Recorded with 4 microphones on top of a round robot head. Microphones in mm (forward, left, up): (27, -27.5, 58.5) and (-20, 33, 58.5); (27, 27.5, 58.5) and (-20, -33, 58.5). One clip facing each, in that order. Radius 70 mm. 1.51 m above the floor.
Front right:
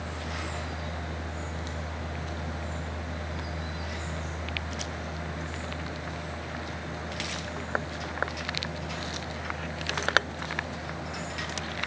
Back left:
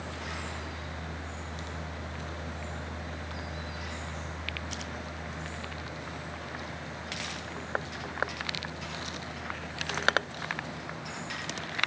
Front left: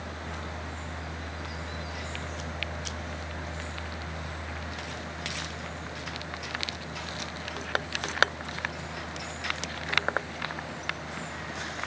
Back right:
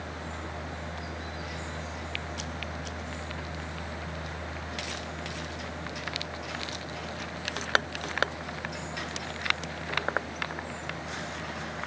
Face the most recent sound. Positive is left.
No sound to turn to.